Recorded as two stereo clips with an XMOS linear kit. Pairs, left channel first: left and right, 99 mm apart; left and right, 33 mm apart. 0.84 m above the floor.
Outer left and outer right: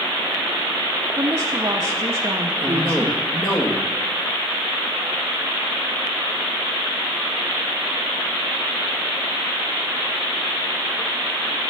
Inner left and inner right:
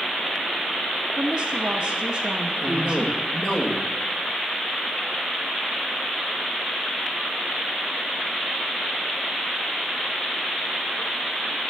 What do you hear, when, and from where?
1.2 s a woman speaking: 30° right (ahead or behind), 0.6 m
2.6 s a man speaking: 35° left (ahead or behind), 1.5 m